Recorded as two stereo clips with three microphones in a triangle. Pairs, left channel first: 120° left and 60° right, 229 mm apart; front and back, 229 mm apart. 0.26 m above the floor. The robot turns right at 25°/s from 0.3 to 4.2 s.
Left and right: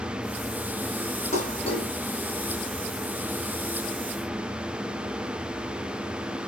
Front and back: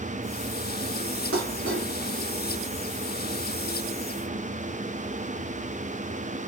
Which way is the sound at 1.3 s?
175° left.